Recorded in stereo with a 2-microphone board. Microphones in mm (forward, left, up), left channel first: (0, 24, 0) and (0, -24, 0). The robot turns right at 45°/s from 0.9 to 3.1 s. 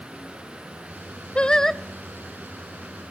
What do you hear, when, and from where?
1.4 s singing: 20° left (ahead or behind), 0.6 m; by 1.8 s centre (ahead or behind), 0.6 m